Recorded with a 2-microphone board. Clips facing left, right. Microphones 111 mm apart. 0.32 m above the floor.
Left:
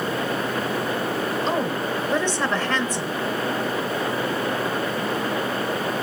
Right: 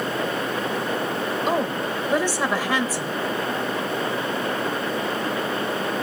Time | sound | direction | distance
1.5 | a woman speaking | 10° right (ahead or behind) | 1.0 m